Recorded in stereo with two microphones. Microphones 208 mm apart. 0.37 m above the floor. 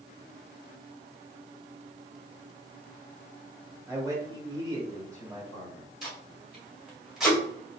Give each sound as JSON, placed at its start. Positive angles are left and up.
{"t": 3.9, "sound": "a man speaking", "side_deg": -15, "distance_m": 1.0}
{"t": 6.0, "sound": "tape being pulled", "side_deg": 0, "distance_m": 1.5}